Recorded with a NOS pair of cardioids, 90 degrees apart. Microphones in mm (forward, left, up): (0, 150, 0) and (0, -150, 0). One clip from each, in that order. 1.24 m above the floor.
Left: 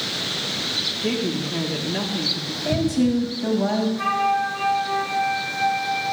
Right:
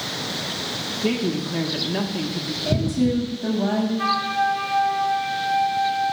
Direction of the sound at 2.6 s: 15° left.